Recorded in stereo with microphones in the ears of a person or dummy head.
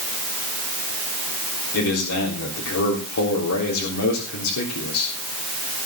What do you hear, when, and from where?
1.7 s a man speaking: 90° left, 3.5 m